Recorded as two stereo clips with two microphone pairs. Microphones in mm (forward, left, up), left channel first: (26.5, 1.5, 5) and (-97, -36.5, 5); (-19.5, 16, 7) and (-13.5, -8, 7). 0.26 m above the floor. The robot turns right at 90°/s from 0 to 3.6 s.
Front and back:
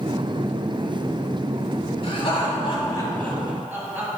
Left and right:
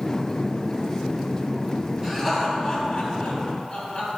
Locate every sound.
2.0 s laughter: 15° right, 2 m; by 4.1 s 130° left, 2 m